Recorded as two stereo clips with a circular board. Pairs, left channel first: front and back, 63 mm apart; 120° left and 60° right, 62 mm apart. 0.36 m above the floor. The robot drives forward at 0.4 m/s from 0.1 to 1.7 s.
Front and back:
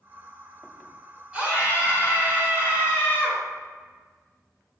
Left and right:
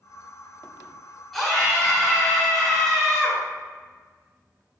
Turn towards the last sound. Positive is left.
turn(degrees=-165)